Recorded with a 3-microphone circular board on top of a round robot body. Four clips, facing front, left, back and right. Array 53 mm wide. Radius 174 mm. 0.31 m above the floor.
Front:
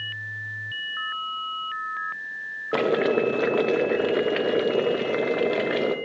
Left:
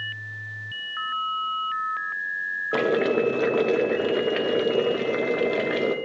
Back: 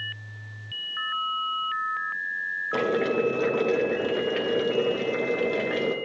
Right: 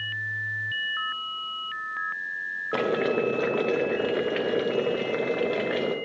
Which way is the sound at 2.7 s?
15° left.